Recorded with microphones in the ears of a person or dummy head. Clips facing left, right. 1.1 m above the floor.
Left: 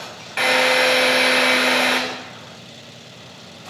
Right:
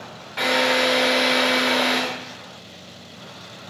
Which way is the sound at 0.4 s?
40° left (ahead or behind).